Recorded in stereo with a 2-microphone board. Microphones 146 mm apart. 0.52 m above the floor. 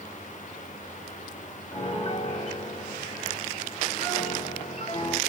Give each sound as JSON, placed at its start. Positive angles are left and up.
{"t": 1.7, "sound": "a piano", "side_deg": 45, "distance_m": 0.8}